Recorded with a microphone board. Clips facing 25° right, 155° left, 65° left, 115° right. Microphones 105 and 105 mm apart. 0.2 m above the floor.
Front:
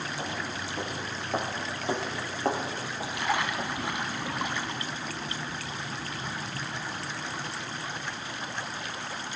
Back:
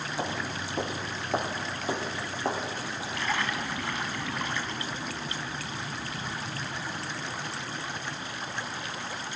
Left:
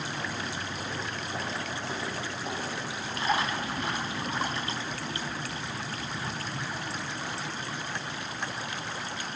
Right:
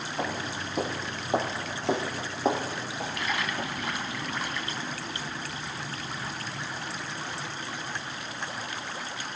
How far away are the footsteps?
About 1.8 m.